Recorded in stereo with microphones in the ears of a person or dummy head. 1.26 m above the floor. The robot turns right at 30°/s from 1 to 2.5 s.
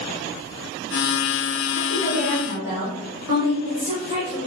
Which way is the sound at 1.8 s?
10° left (ahead or behind).